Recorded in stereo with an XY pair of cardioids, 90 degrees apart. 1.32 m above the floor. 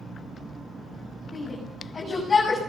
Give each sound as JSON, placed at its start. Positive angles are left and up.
{"t": 1.3, "sound": "a shout", "azimuth_deg": 35, "distance_m": 7.0}